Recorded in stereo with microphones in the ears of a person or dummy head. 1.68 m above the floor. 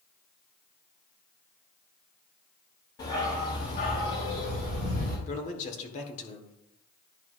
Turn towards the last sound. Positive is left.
turn(degrees=40)  # may be behind; listen again after turning